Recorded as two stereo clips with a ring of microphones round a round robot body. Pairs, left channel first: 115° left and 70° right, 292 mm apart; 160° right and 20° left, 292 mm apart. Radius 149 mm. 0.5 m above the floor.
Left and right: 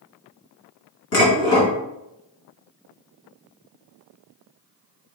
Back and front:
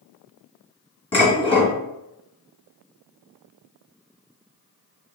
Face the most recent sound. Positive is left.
turn(degrees=130)